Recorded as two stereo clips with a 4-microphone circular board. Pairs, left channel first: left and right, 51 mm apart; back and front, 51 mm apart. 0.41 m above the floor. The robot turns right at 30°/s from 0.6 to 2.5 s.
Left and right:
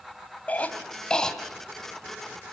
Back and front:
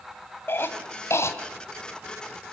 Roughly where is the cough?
Behind left.